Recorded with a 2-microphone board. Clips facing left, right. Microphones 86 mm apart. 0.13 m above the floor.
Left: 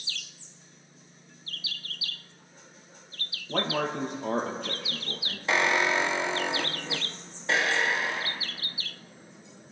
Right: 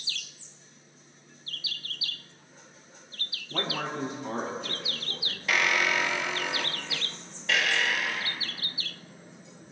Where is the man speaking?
65° left (ahead or behind), 4 m.